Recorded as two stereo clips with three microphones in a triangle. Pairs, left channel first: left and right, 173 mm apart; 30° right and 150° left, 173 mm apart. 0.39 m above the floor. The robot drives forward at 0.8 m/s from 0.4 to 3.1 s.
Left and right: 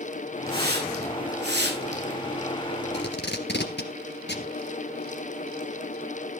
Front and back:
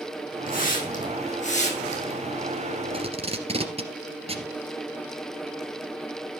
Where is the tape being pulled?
95° left, 2.5 m.